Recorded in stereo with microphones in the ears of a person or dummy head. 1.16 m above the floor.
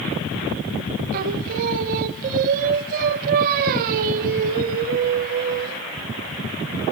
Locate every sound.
1.1 s singing: 45° right (ahead or behind), 0.5 m